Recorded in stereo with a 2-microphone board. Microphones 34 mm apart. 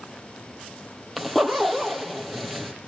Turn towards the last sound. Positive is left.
turn(degrees=0)  # may be behind; listen again after turning